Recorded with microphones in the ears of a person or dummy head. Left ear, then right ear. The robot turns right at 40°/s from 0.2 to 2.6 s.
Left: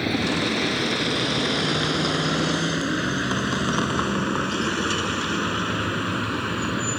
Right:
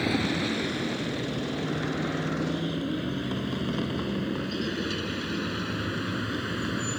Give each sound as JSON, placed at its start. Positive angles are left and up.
{"t": 0.0, "sound": "a vehicle", "side_deg": 5}